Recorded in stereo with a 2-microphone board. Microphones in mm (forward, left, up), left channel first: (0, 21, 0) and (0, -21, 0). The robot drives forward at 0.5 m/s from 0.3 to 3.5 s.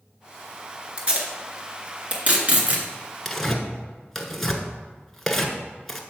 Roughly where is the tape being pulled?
Right.